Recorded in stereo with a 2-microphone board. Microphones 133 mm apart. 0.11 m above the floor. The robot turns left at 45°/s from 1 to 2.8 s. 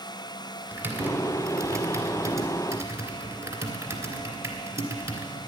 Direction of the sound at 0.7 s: 15° right (ahead or behind).